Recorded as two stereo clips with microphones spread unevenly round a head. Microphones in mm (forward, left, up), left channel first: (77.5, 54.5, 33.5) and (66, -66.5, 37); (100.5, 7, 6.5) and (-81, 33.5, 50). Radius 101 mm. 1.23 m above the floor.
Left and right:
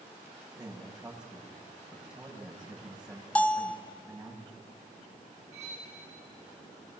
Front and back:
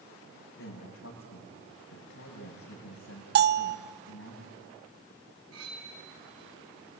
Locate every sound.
0.6 s a man speaking: 10° right, 8 m
3.4 s a bell: 160° left, 0.6 m
5.5 s cutlery clinking: 175° right, 5.5 m